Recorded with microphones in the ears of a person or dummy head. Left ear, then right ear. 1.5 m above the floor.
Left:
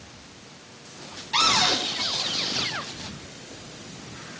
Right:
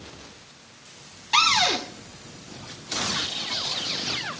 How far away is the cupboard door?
About 1.4 m.